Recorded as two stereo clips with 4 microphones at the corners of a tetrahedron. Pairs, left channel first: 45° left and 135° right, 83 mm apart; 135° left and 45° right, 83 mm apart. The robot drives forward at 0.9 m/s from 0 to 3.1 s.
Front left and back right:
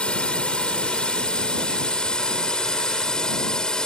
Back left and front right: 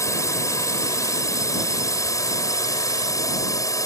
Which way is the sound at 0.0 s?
115° left.